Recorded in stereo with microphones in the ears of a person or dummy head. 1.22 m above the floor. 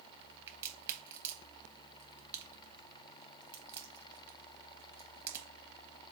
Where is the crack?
10° right (ahead or behind), 0.7 m.